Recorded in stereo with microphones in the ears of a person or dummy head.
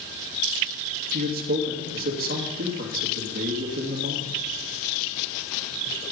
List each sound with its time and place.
1.1 s a man speaking: 55° right (ahead or behind), 2 m